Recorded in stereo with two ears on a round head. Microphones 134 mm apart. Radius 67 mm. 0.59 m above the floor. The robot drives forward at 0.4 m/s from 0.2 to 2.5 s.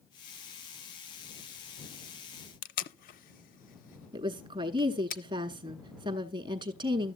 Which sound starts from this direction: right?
A woman speaking, at 4.1 s.